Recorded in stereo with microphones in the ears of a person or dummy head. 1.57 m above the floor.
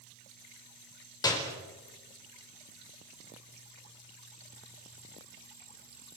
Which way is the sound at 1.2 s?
25° left (ahead or behind).